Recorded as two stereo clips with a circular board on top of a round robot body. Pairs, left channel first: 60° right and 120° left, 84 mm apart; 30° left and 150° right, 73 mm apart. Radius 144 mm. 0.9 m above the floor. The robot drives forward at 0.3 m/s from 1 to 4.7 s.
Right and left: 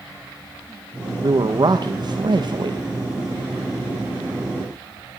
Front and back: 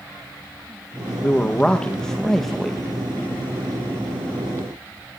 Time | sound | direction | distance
1.2 | a man speaking | 100° left | 1.5 m